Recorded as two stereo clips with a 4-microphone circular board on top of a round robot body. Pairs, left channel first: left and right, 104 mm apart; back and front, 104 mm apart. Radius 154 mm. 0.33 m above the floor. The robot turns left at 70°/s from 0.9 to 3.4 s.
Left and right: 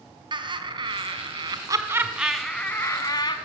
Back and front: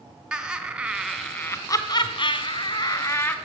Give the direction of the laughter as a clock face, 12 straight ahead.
3 o'clock.